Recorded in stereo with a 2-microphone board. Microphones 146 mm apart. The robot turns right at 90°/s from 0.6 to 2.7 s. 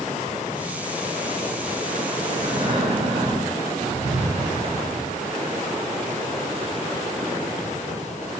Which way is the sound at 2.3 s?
140° right.